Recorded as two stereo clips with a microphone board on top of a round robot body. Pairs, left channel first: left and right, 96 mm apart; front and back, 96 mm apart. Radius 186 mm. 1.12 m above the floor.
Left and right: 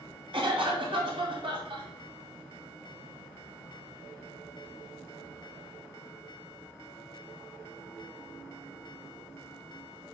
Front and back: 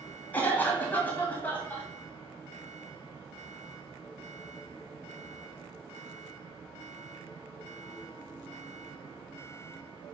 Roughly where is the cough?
Right.